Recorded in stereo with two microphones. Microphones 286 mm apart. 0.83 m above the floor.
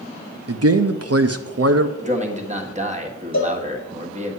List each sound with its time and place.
0.5 s a man speaking: 55° right (ahead or behind), 0.6 m
2.0 s a man speaking: 25° right (ahead or behind), 1.5 m
3.3 s a cowbell: 65° left (ahead or behind), 1.8 m